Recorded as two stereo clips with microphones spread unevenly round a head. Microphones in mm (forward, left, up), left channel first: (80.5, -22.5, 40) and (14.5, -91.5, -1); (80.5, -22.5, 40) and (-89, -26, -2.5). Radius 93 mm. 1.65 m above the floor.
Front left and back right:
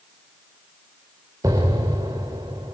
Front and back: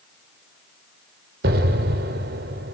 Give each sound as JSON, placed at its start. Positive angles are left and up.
{"t": 1.4, "sound": "an explosion", "azimuth_deg": 140, "distance_m": 2.0}